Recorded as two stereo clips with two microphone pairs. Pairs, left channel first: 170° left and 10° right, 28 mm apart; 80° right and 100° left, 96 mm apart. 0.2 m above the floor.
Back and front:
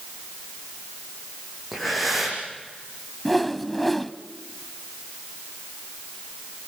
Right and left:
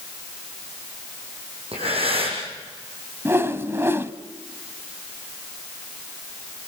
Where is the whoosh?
90° left, 1.0 m.